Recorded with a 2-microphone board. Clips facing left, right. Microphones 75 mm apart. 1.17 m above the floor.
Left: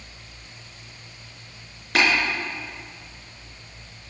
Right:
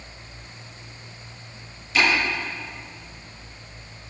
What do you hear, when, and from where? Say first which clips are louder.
1.9 s tapping: even; 65° left (ahead or behind), 5 m